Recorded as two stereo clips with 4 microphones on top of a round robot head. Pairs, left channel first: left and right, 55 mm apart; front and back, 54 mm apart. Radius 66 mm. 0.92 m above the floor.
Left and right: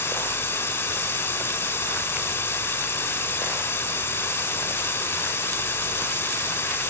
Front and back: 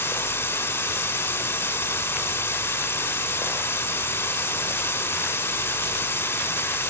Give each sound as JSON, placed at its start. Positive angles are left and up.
{"t": 0.0, "sound": "running water", "azimuth_deg": 50, "distance_m": 2.0}